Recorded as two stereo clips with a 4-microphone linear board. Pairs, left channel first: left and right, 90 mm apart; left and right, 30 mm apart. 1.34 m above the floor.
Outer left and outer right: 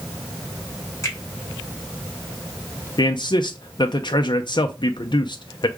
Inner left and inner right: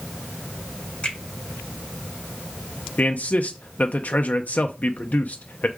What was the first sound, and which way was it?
A finger snap, 35° left (ahead or behind).